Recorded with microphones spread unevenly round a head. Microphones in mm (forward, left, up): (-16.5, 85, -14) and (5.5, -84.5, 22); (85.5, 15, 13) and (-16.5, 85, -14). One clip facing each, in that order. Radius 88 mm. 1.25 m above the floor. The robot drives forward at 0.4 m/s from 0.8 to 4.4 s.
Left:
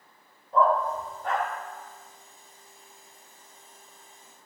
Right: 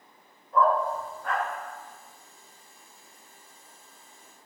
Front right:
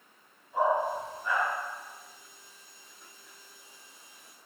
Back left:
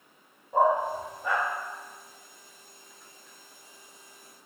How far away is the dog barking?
About 0.9 m.